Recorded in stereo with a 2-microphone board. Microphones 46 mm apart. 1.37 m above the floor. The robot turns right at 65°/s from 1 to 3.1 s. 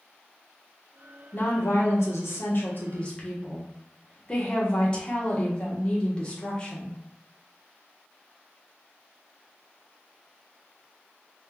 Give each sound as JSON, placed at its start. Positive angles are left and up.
{"t": 1.3, "sound": "a woman speaking", "azimuth_deg": 45, "distance_m": 0.9}